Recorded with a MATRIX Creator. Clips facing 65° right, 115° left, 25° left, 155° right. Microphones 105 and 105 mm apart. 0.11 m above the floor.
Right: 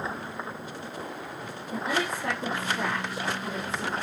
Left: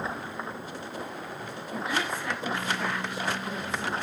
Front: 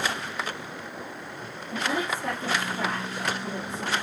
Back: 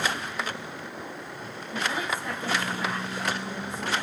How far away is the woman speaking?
About 4.5 m.